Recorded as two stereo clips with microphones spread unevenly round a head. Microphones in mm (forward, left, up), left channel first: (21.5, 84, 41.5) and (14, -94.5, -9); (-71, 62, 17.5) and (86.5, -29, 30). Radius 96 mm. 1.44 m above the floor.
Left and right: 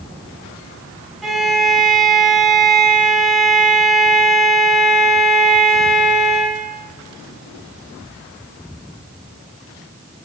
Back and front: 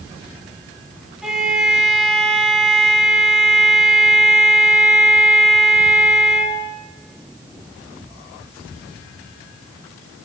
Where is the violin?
45° left, 1.2 m.